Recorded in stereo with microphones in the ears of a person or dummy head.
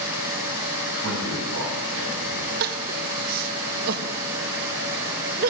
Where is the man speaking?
85° right, 7.5 m.